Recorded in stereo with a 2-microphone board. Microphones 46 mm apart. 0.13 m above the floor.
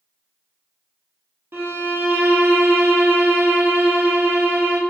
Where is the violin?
65° right (ahead or behind), 0.6 m.